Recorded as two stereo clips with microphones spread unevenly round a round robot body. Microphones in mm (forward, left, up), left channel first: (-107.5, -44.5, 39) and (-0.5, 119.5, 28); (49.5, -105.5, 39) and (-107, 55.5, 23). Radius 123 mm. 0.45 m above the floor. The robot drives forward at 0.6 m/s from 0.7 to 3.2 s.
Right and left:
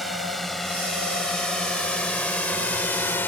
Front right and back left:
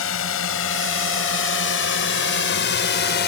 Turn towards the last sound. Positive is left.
turn(degrees=-45)